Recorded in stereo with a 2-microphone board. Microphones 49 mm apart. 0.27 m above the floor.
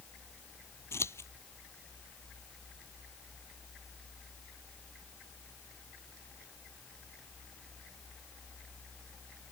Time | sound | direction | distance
0.9 | scissors | 70° left (ahead or behind) | ?